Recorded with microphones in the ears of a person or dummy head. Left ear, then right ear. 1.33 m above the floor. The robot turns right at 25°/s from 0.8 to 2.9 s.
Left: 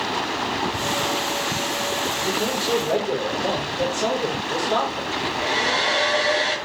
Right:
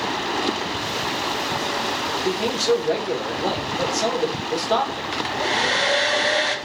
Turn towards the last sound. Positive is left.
turn(degrees=-30)  # may be behind; listen again after turning